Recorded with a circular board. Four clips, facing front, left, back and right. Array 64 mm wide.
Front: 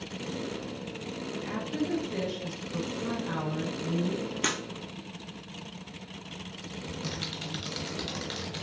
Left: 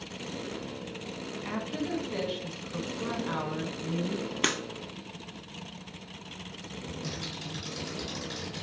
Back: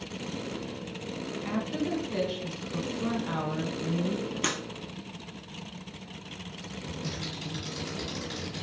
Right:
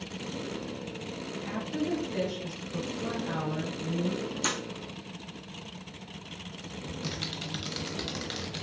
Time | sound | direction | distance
1.4 | a woman speaking | 120° left | 1.0 m
4.4 | breaking glass | 85° left | 0.8 m
6.8 | typing on a keyboard | 55° right | 0.7 m